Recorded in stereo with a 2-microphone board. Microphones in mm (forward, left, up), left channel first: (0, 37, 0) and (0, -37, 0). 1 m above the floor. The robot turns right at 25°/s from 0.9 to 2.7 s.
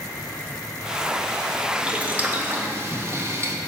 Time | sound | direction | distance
1.7 | boiling | 10° right (ahead or behind) | 0.6 m